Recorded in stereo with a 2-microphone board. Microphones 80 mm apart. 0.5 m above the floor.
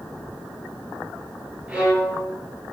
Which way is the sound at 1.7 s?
15° right (ahead or behind).